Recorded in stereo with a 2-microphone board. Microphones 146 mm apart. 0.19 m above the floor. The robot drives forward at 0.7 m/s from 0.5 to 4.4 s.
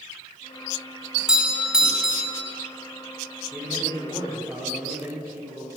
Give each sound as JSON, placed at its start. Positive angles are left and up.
{"t": 1.2, "sound": "a doorbell", "side_deg": -5, "distance_m": 2.0}
{"t": 3.5, "sound": "a man speaking", "side_deg": -10, "distance_m": 5.0}